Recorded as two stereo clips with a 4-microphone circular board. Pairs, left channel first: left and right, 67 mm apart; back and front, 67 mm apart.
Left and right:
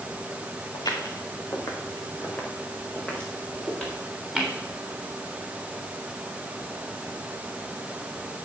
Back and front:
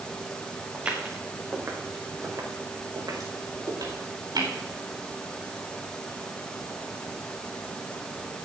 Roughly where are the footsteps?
Left.